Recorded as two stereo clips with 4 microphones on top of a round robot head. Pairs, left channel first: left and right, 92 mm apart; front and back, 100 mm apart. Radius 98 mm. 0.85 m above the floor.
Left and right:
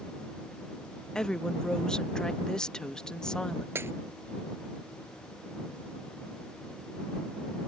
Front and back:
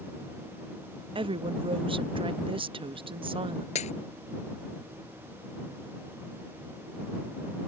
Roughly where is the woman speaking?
Behind.